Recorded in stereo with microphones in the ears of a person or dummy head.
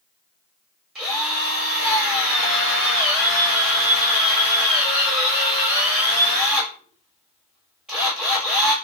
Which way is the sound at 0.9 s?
5° left (ahead or behind).